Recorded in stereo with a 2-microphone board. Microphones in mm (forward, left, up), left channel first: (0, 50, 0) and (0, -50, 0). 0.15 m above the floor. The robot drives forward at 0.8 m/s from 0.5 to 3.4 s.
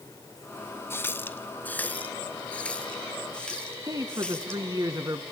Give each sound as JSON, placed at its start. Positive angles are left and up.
{"t": 0.9, "sound": "a running tap", "side_deg": 25, "distance_m": 0.9}
{"t": 3.9, "sound": "a man speaking", "side_deg": -40, "distance_m": 1.6}